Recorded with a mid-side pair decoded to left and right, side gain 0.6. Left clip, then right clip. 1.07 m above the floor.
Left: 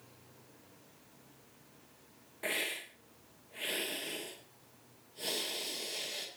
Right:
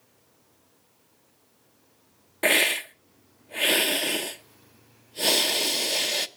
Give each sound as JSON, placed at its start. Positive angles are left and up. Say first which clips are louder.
{"t": 2.4, "sound": "a hiss", "louder": "right 15 dB", "azimuth_deg": -60, "distance_m": 0.7}